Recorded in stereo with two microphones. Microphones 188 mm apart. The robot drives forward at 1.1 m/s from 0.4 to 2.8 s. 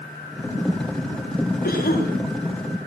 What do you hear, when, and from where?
1.6 s a cough: 50° left (ahead or behind), 6 m; by 2.1 s 55° left (ahead or behind), 6 m